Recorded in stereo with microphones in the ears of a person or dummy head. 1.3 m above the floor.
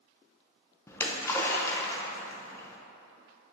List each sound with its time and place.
0.9 s a splash: 15° left (ahead or behind), 0.7 m